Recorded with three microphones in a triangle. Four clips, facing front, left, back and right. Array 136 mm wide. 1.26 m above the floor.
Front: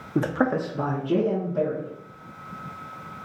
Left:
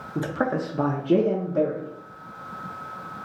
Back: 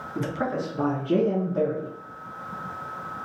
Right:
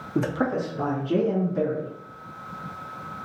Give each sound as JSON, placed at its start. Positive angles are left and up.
{"t": 0.1, "sound": "a man speaking", "azimuth_deg": -25, "distance_m": 0.7}